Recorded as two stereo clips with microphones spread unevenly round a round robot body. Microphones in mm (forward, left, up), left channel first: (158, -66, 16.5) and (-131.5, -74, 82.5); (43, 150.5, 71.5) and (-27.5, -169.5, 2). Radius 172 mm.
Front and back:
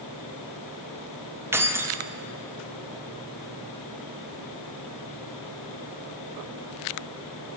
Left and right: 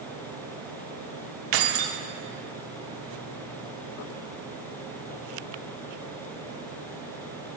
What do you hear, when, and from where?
1.5 s keys jangling: 95° right, 1.2 m